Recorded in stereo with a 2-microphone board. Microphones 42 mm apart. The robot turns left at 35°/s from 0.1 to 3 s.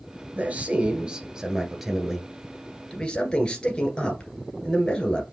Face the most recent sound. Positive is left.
turn(degrees=145)